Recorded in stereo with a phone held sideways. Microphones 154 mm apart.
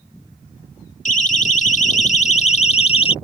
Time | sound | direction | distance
1.1 | a siren | 55° left (ahead or behind) | ?